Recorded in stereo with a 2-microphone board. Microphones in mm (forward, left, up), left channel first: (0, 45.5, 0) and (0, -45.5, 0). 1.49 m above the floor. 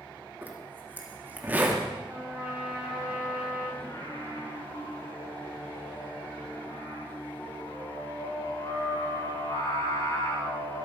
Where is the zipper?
20° right (ahead or behind), 2.0 m.